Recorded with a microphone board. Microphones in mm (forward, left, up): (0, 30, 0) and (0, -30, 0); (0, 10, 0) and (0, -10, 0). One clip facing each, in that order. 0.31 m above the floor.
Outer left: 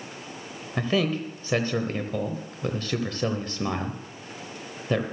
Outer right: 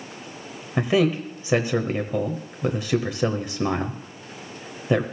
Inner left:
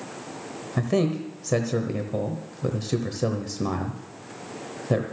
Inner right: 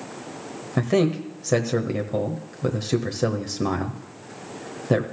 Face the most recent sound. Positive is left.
turn(degrees=-15)  # may be behind; listen again after turning